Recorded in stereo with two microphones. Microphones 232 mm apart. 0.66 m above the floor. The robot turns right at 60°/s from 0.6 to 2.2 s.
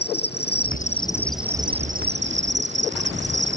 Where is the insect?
135° left; by 3.6 s 130° right.